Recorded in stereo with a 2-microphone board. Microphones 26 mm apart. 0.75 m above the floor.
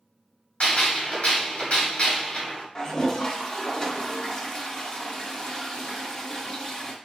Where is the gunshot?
50° left (ahead or behind), 1.2 m.